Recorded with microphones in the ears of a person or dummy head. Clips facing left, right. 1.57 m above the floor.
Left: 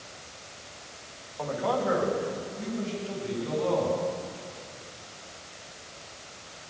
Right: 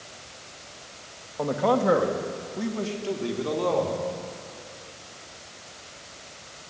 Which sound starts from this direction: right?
A man speaking, at 1.4 s.